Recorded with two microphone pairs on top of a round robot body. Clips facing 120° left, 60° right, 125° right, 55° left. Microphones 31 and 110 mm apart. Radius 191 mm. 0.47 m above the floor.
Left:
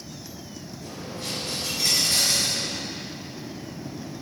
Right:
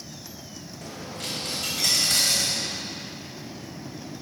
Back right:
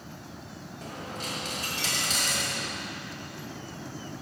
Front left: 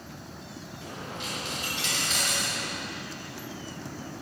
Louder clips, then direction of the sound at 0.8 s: Even, back right 1 dB; 75° right.